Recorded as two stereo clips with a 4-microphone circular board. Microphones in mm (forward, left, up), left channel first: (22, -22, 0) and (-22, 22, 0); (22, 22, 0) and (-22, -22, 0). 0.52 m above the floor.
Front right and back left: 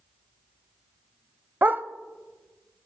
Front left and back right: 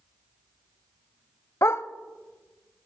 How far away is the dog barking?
About 0.5 m.